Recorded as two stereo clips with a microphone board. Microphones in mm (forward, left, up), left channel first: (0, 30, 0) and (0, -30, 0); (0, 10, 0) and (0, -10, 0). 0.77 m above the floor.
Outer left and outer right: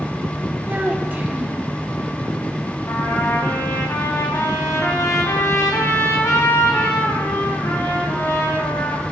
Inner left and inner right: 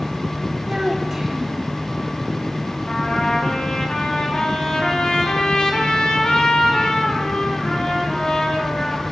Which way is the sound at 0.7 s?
25° right (ahead or behind).